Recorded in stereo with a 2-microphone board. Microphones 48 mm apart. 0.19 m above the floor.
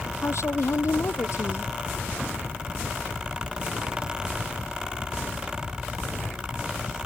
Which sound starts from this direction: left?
A woman speaking, at 0.2 s.